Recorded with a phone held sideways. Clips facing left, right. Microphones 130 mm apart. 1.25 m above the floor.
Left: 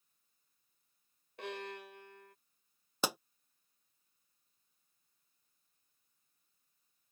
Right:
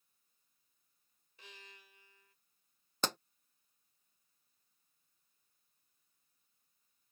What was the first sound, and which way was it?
A violin, 80° left.